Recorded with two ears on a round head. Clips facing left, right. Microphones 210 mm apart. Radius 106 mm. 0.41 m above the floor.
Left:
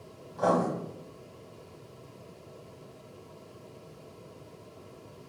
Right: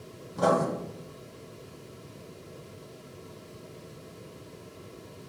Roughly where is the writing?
Right.